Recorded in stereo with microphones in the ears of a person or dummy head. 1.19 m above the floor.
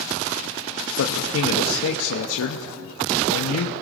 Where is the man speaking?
75° left (ahead or behind), 1.2 m.